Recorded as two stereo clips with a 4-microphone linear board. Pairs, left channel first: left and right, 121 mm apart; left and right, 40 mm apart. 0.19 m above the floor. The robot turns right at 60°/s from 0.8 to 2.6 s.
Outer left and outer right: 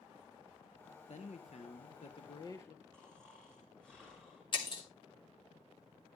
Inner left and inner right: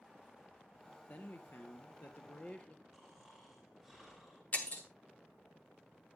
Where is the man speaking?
65° left, 3 m; by 2.8 s 155° left, 3 m.